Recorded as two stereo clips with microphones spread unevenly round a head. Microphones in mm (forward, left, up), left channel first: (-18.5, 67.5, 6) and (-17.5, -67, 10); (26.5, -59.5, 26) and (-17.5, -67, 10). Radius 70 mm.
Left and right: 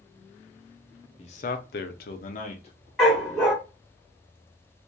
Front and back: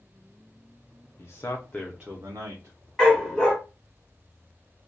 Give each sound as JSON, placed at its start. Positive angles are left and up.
{"t": 1.2, "sound": "a man speaking", "azimuth_deg": 40, "distance_m": 0.6}
{"t": 3.0, "sound": "a dog barking", "azimuth_deg": -10, "distance_m": 1.3}